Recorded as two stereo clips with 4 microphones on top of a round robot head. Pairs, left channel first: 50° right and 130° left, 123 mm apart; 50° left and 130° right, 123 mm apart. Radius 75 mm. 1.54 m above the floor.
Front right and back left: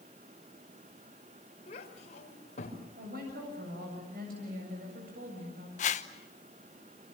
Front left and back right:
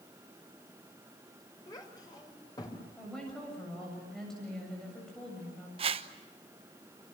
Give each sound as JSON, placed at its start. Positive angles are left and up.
{"t": 1.7, "sound": "a child speaking", "azimuth_deg": -10, "distance_m": 5.0}
{"t": 3.0, "sound": "a woman speaking", "azimuth_deg": 135, "distance_m": 7.5}
{"t": 5.8, "sound": "a whoosh", "azimuth_deg": -85, "distance_m": 1.1}